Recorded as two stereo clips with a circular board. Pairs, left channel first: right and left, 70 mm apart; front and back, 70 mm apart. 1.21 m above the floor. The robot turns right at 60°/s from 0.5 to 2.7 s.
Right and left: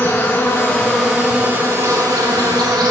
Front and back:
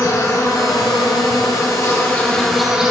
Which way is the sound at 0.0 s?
35° right.